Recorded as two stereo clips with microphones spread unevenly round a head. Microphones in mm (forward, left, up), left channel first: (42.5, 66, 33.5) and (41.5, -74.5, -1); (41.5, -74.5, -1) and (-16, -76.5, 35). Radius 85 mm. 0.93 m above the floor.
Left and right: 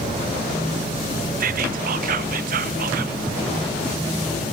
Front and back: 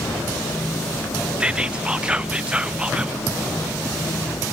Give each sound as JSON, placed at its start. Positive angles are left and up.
{"t": 1.4, "sound": "whispering", "azimuth_deg": -95, "distance_m": 0.6}